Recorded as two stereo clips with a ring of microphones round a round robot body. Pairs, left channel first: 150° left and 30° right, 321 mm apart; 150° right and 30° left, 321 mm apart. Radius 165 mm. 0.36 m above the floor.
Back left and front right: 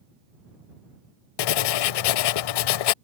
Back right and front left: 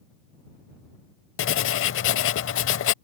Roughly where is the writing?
Behind left.